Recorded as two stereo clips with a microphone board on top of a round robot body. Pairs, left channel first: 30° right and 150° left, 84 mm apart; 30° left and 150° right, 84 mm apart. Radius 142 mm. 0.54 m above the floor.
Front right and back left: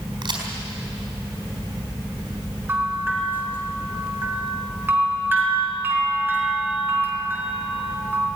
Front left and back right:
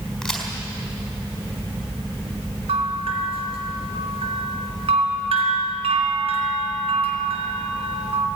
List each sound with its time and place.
0.2 s a crack: 120° left, 4.5 m
2.7 s a bell: 140° right, 3.5 m